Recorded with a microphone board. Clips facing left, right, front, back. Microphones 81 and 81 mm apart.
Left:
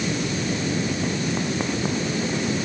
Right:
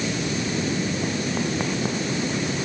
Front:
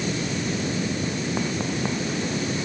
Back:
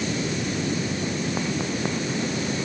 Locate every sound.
Only background noise.